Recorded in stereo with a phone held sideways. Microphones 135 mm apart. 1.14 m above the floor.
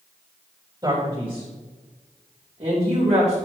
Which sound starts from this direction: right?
A man speaking, at 0.8 s.